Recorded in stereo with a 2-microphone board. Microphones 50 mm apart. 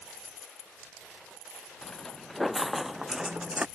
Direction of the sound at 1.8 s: 10° left (ahead or behind).